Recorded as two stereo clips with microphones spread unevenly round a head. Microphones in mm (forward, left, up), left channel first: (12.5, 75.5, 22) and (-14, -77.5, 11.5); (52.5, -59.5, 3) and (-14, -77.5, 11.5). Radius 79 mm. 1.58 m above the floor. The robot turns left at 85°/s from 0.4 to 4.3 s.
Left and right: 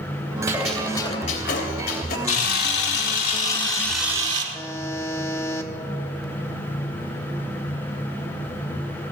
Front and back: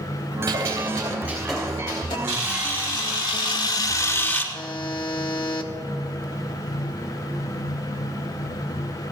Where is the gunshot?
175° right, 2.5 m; by 2.2 s 40° left, 2.5 m.